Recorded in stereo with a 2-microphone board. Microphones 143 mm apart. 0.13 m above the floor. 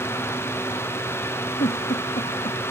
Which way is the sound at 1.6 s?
65° left (ahead or behind).